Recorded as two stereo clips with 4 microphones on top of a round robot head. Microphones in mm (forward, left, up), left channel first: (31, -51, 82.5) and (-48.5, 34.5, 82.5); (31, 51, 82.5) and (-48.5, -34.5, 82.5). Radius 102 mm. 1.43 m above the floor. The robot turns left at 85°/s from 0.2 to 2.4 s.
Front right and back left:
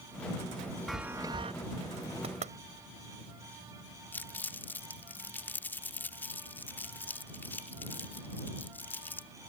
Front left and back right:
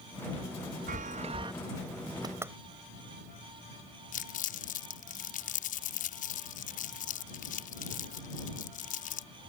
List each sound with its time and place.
0.9 s a chime: 135° right; by 1.5 s 170° left
2.2 s knocking: 170° left; by 2.6 s 155° left
4.1 s crumpling: 30° left